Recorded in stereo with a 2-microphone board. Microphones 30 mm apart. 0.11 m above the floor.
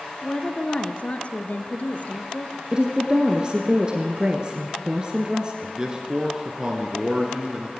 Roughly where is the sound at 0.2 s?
Left.